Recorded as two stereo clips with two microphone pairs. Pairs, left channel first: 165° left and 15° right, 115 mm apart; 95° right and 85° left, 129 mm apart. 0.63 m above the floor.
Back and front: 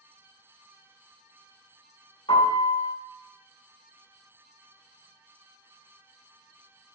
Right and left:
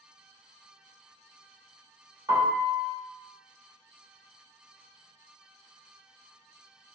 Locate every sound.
2.3 s a piano: 150° left, 1.2 m